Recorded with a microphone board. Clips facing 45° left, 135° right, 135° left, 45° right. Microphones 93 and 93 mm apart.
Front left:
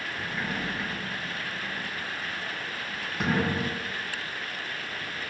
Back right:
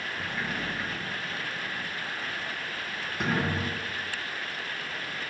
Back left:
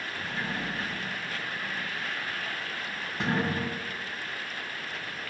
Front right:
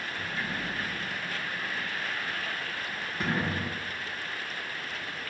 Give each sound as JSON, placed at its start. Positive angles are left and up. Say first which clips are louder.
{"t": 0.2, "sound": "a sliding door", "louder": "front left 1 dB, back left 2 dB", "azimuth_deg": 115, "distance_m": 1.5}